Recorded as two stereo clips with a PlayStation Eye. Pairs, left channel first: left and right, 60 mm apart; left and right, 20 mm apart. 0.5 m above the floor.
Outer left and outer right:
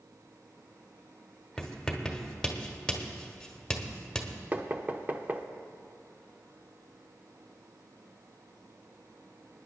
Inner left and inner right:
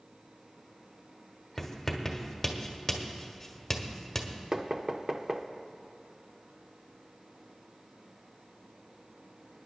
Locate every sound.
1.6 s writing: 10° left (ahead or behind), 1.2 m
4.5 s knocking: 30° right (ahead or behind), 0.7 m